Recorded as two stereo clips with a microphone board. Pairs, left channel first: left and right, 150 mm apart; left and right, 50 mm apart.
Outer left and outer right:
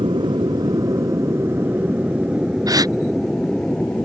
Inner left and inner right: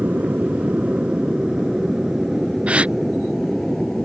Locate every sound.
0.0 s an aircraft: 35° right (ahead or behind); by 4.0 s 10° left (ahead or behind)
2.7 s a gasp: 25° right (ahead or behind)